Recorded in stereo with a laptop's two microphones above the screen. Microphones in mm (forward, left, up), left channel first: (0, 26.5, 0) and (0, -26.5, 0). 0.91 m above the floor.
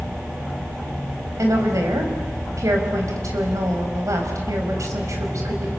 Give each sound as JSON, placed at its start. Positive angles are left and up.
{"t": 1.4, "sound": "a woman speaking", "side_deg": -85, "distance_m": 5.0}